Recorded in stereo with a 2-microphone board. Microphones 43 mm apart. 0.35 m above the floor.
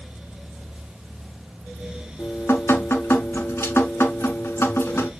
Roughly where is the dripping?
Left.